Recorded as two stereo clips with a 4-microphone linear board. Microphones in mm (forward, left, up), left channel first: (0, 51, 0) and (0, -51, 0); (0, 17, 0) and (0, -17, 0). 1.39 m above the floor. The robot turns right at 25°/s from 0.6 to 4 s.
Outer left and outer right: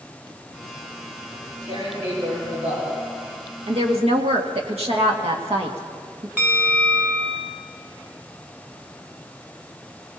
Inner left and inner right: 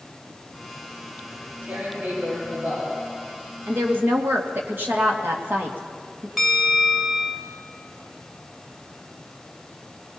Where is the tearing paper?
115° right, 8.5 m; by 2.9 s 75° right, 8.5 m.